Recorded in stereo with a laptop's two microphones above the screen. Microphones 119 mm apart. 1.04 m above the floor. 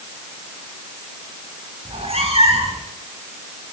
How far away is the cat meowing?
About 4 m.